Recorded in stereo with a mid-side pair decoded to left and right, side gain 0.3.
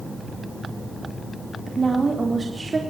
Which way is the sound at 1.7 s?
45° right.